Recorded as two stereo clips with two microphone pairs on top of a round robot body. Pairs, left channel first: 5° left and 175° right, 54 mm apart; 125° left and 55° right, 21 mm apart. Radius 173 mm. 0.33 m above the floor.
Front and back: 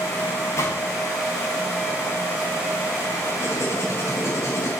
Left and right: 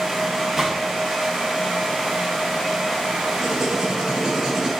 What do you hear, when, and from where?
0.6 s a gunshot: 10° left, 5 m
3.4 s writing: straight ahead, 6.5 m